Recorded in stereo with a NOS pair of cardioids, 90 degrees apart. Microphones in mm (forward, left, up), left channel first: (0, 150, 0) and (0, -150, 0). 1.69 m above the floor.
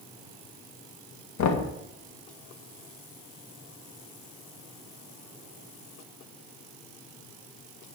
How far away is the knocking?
About 1.7 m.